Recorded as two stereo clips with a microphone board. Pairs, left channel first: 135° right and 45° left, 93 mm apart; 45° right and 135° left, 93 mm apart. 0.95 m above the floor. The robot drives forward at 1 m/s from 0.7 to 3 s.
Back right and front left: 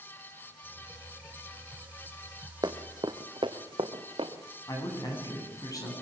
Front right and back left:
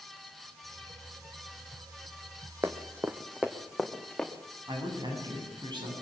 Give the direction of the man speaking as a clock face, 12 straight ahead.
6 o'clock.